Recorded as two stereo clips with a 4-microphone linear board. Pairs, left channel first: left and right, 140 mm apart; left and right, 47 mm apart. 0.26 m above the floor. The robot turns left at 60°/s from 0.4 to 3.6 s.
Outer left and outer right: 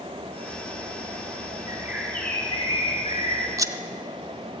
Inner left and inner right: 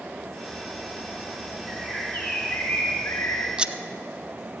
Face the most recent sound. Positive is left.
turn(degrees=-25)  # may be behind; listen again after turning